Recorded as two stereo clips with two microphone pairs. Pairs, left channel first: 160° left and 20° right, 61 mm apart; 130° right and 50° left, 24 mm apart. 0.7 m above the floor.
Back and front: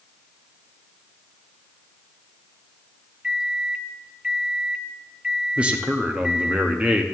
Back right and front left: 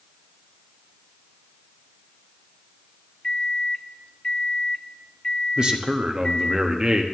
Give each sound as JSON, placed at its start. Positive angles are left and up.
{"t": 3.2, "sound": "a microwave", "azimuth_deg": -95, "distance_m": 0.6}
{"t": 5.6, "sound": "a man speaking", "azimuth_deg": 35, "distance_m": 0.9}